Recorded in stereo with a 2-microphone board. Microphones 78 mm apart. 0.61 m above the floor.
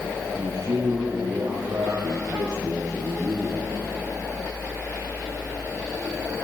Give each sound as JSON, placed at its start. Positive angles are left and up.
{"t": 0.3, "sound": "a man speaking", "side_deg": -85, "distance_m": 8.5}